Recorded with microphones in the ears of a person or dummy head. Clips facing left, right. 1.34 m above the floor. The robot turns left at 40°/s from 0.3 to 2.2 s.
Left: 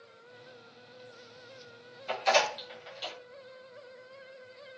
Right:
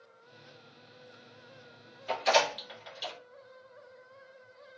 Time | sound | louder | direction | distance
2.1 | a door slam | even | 5° right (ahead or behind) | 1.2 m